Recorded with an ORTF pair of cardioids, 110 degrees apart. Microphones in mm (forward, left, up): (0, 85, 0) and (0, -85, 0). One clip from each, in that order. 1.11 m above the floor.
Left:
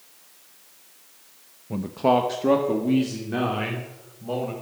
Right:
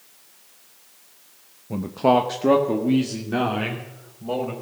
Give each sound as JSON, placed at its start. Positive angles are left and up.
{"t": 1.7, "sound": "a man speaking", "azimuth_deg": -5, "distance_m": 0.6}